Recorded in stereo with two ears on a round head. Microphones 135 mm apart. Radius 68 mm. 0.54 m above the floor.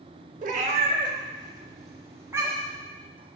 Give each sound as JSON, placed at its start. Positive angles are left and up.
{"t": 0.4, "sound": "a cat meowing", "side_deg": -55, "distance_m": 0.8}